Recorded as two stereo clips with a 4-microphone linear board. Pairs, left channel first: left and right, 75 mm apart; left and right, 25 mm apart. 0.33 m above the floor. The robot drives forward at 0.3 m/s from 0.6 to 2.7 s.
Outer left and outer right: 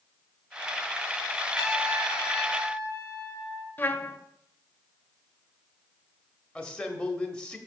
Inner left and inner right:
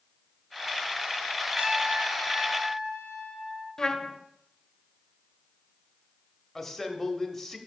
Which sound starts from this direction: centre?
A man speaking, at 6.5 s.